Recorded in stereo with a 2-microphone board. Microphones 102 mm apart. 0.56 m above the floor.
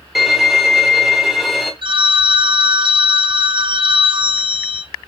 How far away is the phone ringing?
About 0.6 m.